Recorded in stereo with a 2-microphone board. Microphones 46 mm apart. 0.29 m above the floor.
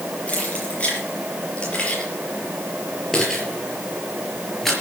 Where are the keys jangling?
30° left (ahead or behind), 6 m; by 4.7 s 5° left (ahead or behind), 5 m.